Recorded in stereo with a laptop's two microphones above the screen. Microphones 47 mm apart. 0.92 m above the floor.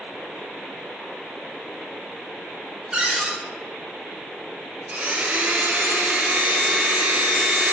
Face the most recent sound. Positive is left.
turn(degrees=-30)  # may be behind; listen again after turning